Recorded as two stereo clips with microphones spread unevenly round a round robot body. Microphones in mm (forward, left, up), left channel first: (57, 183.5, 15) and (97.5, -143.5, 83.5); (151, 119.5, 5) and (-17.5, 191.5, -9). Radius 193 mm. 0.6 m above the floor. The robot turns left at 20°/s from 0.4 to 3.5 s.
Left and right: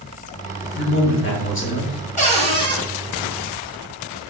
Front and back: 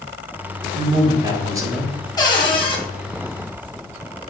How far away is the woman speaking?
About 1.0 m.